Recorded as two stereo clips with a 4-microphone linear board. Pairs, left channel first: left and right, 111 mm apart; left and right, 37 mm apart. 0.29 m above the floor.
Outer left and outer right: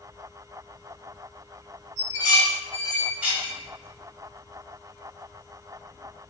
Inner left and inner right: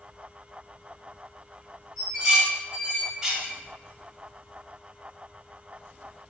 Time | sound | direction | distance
2.0 | dishes clattering | 15° right (ahead or behind) | 0.8 m